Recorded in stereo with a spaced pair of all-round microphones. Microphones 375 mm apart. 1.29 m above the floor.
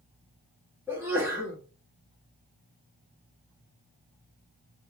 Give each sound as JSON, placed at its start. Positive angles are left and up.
{"t": 0.9, "sound": "a sneeze", "side_deg": -5, "distance_m": 1.1}